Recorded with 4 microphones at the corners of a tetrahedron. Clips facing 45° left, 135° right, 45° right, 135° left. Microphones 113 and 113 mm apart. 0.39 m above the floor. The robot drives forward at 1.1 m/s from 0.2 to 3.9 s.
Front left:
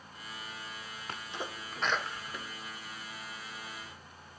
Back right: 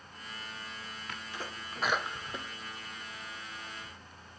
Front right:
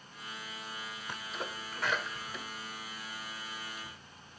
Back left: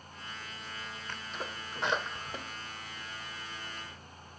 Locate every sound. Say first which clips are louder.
1.1 s a sneeze: front left 3 dB, front right 1 dB; 20° left, 1.0 m; by 3.9 s 175° left, 2.5 m